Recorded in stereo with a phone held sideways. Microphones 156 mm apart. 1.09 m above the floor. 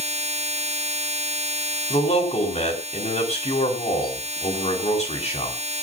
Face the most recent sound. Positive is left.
turn(degrees=50)  # may be behind; listen again after turning